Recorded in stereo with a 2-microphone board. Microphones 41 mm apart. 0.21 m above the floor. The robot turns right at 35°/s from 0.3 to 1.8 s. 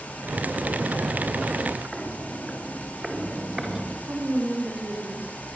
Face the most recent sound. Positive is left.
turn(degrees=-40)  # may be behind; listen again after turning